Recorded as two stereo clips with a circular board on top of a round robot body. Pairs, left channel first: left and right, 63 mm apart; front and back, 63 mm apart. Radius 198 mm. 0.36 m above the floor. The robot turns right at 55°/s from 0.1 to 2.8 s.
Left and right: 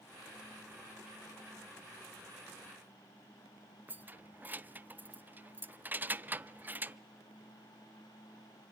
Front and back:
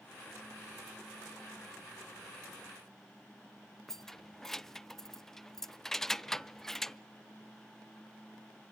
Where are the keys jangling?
75° right, 0.6 m.